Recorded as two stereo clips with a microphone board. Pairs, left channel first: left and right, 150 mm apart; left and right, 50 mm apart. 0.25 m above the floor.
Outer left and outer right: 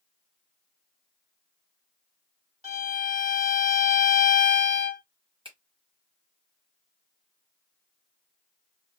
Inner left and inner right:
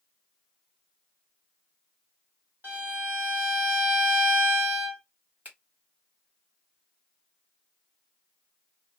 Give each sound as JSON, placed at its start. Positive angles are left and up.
{"t": 2.6, "sound": "a violin", "side_deg": -50, "distance_m": 1.2}
{"t": 5.5, "sound": "a finger snap", "side_deg": -40, "distance_m": 1.7}